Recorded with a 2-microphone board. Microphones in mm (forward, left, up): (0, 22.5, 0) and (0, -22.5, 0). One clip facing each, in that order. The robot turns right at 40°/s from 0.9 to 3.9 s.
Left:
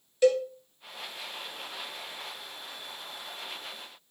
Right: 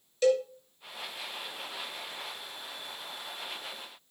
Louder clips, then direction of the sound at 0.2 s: Left 2 dB; 20° left (ahead or behind).